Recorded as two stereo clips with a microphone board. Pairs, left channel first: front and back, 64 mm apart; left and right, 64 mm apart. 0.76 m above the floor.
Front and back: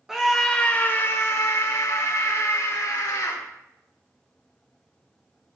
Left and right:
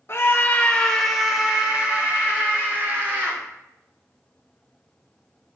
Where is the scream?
100° left, 0.9 m; by 3.4 s 30° right, 2.5 m.